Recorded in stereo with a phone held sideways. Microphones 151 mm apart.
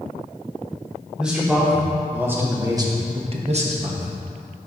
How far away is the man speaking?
About 2.5 m.